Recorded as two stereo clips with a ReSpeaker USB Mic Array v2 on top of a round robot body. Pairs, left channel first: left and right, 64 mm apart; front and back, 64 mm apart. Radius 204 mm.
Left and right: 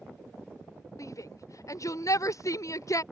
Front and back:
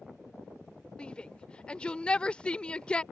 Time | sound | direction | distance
1.0 | a shout | 70° left | ?